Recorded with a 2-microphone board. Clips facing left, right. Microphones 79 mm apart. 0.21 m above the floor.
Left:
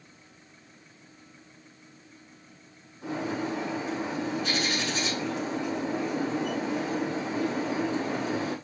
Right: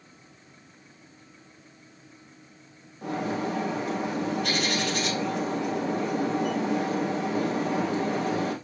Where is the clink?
No clink in this recording.